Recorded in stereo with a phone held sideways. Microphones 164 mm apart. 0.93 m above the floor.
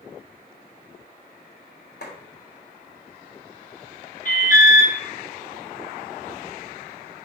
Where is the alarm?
55° left (ahead or behind), 3 m.